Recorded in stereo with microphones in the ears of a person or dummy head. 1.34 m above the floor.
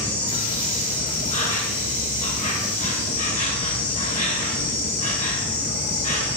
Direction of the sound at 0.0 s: 35° left (ahead or behind).